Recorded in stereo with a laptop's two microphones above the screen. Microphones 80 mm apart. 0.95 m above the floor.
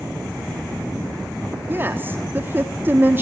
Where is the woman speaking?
25° right (ahead or behind), 1.7 m.